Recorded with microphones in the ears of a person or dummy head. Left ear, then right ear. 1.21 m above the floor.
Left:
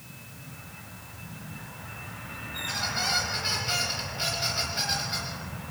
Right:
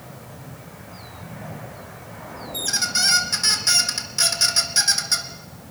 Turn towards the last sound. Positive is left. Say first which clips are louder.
# right 7 dB
turn(degrees=-70)  # may be behind; listen again after turning